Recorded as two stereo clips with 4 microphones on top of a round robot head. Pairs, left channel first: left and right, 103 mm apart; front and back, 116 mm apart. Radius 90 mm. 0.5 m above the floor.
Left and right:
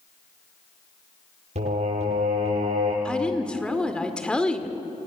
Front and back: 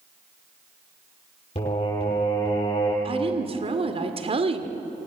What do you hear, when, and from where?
1.6 s singing: 55° right, 10 m
3.0 s a woman speaking: 170° left, 1.9 m